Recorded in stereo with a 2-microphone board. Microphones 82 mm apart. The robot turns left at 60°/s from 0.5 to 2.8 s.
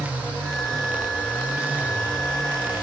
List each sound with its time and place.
Only background noise.